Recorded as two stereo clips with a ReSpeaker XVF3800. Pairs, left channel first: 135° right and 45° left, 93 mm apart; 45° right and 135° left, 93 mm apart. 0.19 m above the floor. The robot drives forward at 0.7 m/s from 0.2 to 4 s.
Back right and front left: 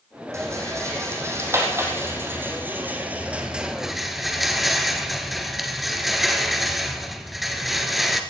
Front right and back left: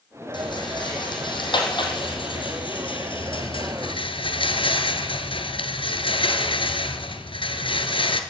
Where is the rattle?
15° right, 3.5 m; by 8.2 s 45° right, 1.2 m.